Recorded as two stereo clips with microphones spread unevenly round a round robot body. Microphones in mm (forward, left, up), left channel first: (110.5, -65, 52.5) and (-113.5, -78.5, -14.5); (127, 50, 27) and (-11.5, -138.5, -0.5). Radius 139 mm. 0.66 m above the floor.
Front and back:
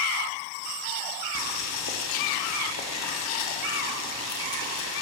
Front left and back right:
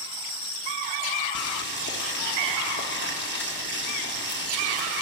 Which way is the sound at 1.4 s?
15° left.